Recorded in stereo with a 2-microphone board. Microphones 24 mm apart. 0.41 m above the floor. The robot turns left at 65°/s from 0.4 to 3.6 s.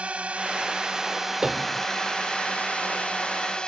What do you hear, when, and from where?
0.0 s a drone: 105° right; by 3.7 s 50° left
1.4 s a piano: 30° right (ahead or behind); by 1.9 s 60° right (ahead or behind)